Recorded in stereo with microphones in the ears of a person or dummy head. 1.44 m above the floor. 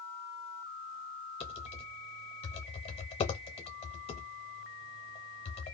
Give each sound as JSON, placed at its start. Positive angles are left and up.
{"t": 1.4, "sound": "typing on a keyboard", "side_deg": 30, "distance_m": 0.8}